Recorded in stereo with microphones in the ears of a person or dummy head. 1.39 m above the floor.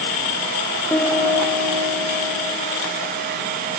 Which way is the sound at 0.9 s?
10° left (ahead or behind).